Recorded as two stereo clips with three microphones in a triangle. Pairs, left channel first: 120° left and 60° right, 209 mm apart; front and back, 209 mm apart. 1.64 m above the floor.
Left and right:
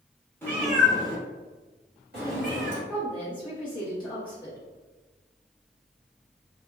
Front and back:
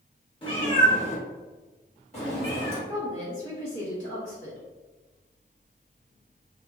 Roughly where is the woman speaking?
Ahead left.